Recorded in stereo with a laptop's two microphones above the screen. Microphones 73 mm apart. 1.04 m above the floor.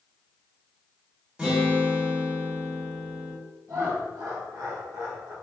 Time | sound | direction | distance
1.4 | a guitar | 15° right (ahead or behind) | 1.4 m
3.7 | laughter | 60° right (ahead or behind) | 1.5 m